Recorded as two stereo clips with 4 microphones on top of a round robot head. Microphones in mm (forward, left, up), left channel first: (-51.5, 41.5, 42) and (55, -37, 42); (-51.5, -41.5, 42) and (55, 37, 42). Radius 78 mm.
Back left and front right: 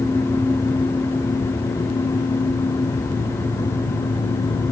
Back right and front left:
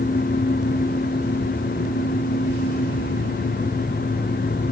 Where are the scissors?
I don't hear scissors.